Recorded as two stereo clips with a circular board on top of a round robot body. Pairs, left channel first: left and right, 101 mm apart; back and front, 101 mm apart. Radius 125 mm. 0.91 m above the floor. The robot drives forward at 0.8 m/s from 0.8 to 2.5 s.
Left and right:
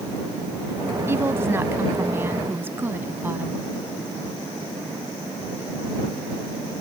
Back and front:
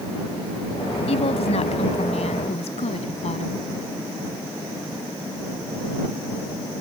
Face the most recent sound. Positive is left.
turn(degrees=-160)